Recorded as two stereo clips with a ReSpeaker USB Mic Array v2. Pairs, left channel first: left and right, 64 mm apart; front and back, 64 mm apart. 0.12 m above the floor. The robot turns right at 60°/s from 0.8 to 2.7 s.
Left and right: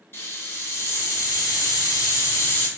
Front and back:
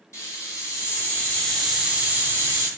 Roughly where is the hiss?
Ahead left.